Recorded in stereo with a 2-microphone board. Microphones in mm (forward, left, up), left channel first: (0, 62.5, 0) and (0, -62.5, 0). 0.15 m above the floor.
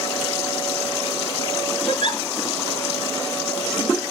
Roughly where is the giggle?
Left.